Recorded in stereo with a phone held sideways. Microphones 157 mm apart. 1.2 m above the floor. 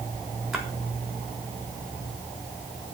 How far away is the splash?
About 3.5 m.